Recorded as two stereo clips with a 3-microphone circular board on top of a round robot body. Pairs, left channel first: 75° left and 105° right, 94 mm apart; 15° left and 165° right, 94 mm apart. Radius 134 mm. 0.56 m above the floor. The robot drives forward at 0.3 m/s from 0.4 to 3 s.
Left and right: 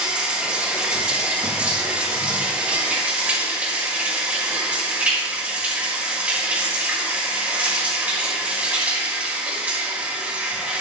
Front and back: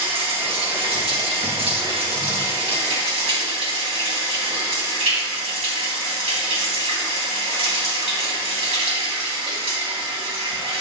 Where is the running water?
175° left, 2.5 m.